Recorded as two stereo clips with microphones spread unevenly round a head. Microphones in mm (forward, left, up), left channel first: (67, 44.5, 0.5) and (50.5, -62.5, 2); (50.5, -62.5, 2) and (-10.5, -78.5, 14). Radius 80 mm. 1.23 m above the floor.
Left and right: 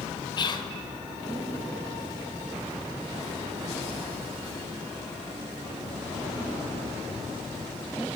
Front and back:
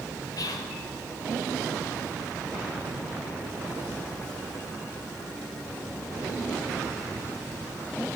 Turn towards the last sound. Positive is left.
turn(degrees=35)